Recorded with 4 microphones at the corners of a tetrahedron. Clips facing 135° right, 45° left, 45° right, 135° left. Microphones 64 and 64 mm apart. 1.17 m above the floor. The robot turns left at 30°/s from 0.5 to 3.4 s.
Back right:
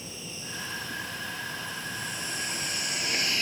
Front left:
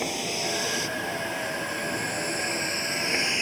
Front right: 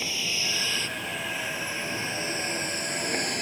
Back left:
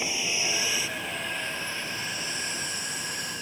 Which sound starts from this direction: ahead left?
A vehicle, at 0.0 s.